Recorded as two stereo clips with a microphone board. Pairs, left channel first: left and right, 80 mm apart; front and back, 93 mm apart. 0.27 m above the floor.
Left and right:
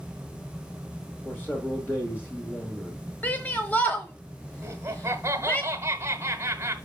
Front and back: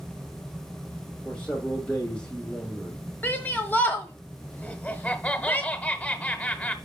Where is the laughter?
65° right, 1.3 m.